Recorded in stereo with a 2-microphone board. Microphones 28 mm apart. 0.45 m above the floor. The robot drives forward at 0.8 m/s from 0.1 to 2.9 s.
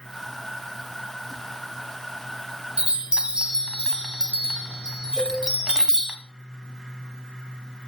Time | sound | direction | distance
2.8 | a chime | 30° right (ahead or behind) | 1.1 m
5.2 | a cowbell | centre (ahead or behind) | 7.5 m